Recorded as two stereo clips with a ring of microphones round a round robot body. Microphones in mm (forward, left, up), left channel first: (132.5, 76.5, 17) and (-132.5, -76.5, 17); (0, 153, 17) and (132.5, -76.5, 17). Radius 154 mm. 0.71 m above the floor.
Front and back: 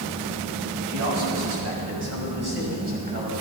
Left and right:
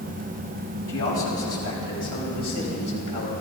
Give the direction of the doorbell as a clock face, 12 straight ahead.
No doorbell in this recording.